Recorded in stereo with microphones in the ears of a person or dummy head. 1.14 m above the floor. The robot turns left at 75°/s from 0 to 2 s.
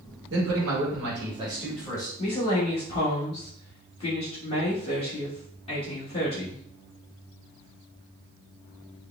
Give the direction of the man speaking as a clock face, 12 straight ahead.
2 o'clock.